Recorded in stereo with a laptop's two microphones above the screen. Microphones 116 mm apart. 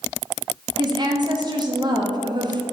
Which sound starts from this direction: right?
A woman speaking, at 0.8 s.